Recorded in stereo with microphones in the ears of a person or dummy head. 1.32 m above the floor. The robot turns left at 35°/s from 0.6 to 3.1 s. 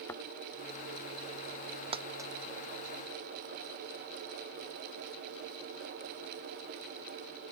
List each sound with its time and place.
0.1 s a thud: 15° left (ahead or behind)
1.9 s a dropped coin: 30° right (ahead or behind); by 2.3 s 15° right (ahead or behind)